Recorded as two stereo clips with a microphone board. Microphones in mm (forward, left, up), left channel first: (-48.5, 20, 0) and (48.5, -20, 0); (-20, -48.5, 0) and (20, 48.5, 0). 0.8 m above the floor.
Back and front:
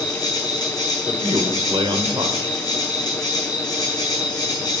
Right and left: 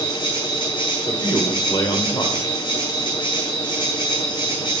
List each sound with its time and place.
0.0 s an insect: 150° right, 3.5 m
1.1 s a man speaking: 65° right, 2.5 m